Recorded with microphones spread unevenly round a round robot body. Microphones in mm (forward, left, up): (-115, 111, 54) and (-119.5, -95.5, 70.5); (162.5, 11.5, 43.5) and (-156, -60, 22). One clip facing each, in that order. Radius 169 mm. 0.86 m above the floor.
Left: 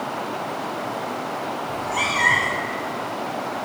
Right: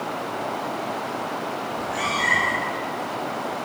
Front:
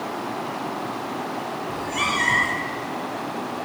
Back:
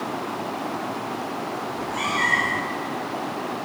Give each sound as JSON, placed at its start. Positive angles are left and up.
{"t": 1.7, "sound": "a cat meowing", "azimuth_deg": 70, "distance_m": 1.9}